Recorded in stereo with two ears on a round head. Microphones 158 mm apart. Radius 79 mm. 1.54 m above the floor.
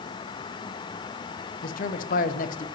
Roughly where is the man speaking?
Left.